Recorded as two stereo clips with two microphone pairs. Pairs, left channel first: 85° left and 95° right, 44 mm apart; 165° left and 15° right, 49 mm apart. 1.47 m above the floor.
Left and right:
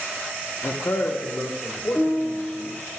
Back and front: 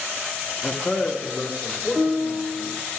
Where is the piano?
20° left, 4 m.